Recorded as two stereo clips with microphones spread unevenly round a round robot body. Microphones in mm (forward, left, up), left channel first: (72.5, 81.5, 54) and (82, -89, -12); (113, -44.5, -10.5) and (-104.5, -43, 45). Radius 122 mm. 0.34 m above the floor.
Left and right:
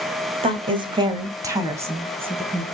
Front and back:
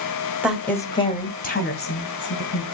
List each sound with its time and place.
0.4 s a woman speaking: 85° right, 1.5 m; by 2.6 s 15° right, 3.5 m